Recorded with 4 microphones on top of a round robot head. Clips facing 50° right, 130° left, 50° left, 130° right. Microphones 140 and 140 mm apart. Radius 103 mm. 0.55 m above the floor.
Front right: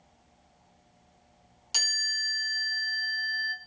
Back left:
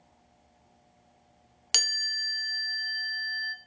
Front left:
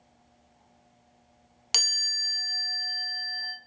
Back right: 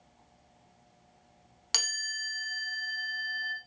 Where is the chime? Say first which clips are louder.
Even, even; 120° left, 0.8 m.